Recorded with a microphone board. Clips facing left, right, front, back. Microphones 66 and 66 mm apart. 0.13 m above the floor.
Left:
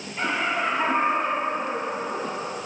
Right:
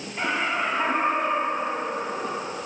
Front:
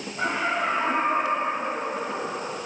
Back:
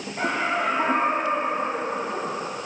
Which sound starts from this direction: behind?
Laughter, at 0.2 s.